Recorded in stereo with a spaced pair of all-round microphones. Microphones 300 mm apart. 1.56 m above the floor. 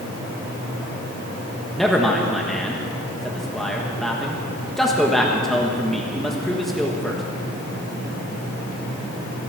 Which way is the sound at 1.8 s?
Centre (ahead or behind).